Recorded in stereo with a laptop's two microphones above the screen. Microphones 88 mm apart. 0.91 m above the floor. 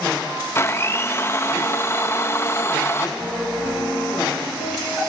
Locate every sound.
0.6 s a blender: 30° left (ahead or behind), 0.5 m
3.2 s a piano: 45° left (ahead or behind), 6.5 m